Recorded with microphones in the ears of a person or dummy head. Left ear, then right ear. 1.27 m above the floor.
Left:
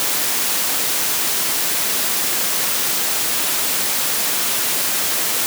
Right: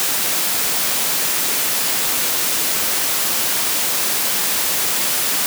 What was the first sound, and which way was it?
Only background noise.